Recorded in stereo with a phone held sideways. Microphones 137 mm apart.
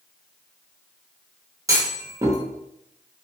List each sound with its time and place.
1.7 s a clunk: 25° right (ahead or behind), 0.8 m